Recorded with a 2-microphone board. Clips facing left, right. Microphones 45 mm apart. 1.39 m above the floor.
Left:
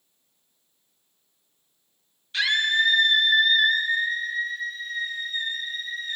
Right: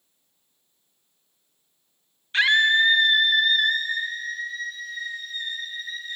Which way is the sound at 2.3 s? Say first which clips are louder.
Right 4 dB; 30° right (ahead or behind).